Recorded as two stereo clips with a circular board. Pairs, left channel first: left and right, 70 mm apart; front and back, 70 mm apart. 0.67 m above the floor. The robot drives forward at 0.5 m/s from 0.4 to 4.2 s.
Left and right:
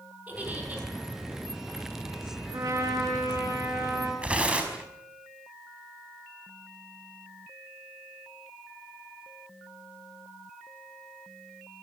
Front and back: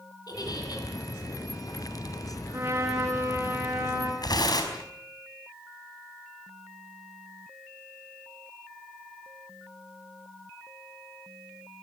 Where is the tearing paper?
15° right, 5 m.